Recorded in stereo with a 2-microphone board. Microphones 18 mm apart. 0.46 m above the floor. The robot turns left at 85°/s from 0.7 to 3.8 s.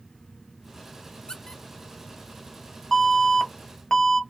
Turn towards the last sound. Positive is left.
turn(degrees=50)